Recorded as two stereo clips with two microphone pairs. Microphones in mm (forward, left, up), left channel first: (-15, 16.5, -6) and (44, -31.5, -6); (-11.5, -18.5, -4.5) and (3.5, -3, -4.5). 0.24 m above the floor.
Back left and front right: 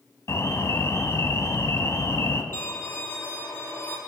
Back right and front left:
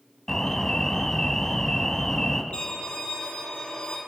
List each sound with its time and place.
0.3 s an alarm: 170° left, 1.2 m
2.5 s a violin: 165° right, 4.5 m